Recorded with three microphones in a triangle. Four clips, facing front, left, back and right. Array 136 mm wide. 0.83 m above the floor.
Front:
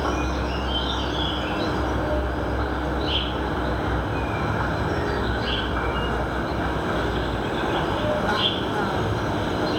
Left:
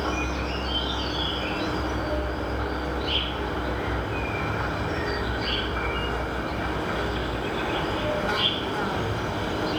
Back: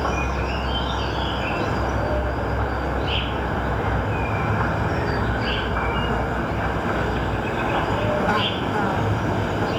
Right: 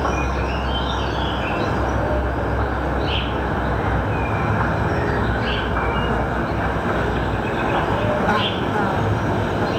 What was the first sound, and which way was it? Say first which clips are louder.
An insect: right 6 dB, back 1 dB; 110° right.